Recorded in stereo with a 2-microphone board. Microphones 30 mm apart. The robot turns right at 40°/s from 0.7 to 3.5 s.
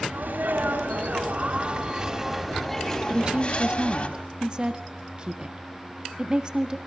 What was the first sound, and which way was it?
A sneeze, 75° right.